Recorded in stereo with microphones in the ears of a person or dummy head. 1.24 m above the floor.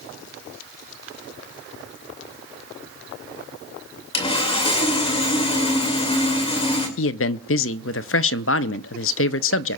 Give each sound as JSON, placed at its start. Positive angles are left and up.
{"t": 4.1, "sound": "sawing", "side_deg": 25, "distance_m": 2.5}
{"t": 7.0, "sound": "a man speaking", "side_deg": 60, "distance_m": 0.5}